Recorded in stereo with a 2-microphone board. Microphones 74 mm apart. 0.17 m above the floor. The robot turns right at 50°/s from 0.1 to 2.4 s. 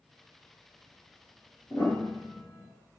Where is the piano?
50° left, 1.6 m; by 2.7 s 85° left, 1.6 m.